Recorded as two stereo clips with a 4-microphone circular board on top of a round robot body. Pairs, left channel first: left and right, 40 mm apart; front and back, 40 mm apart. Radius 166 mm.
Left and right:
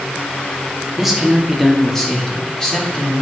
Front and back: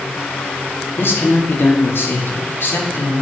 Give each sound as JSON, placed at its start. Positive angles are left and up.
{"t": 1.0, "sound": "a man speaking", "azimuth_deg": -5, "distance_m": 2.5}